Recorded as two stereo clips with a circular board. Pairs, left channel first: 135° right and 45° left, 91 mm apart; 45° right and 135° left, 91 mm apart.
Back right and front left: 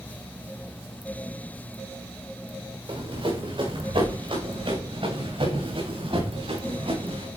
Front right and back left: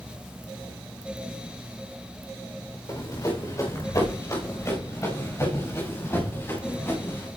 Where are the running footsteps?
15° left, 7.5 m; by 7.3 s 25° left, 10.5 m.